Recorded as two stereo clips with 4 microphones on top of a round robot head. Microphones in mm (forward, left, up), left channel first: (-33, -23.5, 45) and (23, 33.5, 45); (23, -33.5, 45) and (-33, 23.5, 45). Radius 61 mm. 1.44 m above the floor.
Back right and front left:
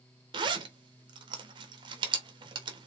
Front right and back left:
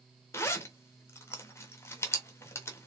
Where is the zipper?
15° left, 1.4 m.